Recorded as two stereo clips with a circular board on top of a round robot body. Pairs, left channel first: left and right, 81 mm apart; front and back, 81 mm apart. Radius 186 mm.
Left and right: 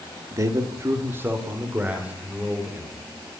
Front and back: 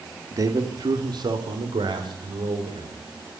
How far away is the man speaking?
About 2.5 m.